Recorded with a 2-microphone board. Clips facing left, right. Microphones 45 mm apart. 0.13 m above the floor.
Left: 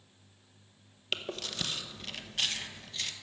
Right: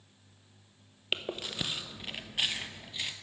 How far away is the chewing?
About 0.6 m.